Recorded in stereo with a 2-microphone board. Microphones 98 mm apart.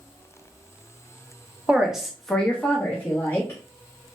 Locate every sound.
1.7 s a woman speaking: 10° right (ahead or behind), 0.7 m; by 3.6 s 25° left (ahead or behind), 1.1 m